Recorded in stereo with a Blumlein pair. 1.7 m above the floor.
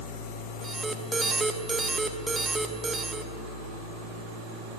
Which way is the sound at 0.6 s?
10° right.